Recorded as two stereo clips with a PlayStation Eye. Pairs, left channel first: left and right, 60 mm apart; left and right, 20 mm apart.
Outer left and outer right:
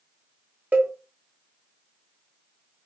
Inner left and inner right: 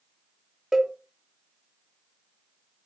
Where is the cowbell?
30° right (ahead or behind), 0.6 m.